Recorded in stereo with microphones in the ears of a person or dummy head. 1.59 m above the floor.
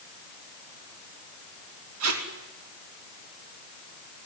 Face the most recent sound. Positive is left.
turn(degrees=-80)